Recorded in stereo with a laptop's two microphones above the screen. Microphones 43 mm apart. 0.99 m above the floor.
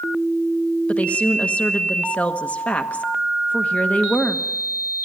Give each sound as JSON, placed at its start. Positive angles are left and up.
{"t": 0.9, "sound": "a woman speaking", "side_deg": 35, "distance_m": 1.1}